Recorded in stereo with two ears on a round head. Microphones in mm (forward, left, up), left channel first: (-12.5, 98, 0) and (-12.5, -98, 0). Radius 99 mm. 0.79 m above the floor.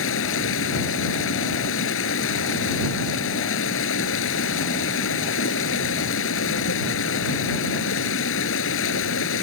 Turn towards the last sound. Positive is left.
turn(degrees=55)  # may be behind; listen again after turning